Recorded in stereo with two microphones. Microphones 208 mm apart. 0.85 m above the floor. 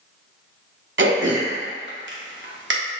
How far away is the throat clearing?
About 0.6 m.